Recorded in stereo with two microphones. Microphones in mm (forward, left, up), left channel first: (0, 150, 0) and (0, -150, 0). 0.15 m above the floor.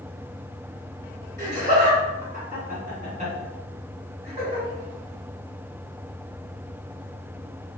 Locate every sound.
1.4 s laughter: 25° right (ahead or behind), 1.9 m; by 4.7 s 20° right (ahead or behind), 2 m